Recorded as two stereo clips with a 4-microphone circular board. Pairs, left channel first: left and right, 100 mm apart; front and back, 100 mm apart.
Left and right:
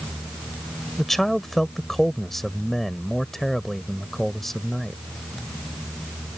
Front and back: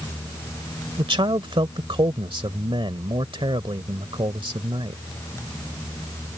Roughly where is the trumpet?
No trumpet in this recording.